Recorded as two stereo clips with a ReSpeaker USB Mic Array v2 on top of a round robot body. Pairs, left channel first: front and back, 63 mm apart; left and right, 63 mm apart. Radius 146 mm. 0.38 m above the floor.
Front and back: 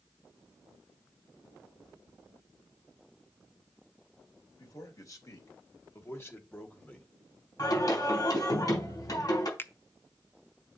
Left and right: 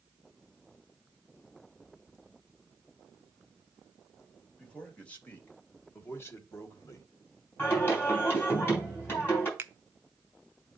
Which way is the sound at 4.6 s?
20° left.